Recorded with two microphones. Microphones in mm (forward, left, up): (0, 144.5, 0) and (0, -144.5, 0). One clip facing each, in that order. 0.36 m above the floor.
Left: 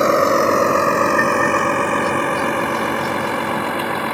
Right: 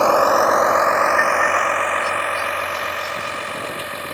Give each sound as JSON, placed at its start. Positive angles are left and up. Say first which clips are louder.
{"t": 0.0, "sound": "a vehicle", "louder": "left 2 dB", "side_deg": 20}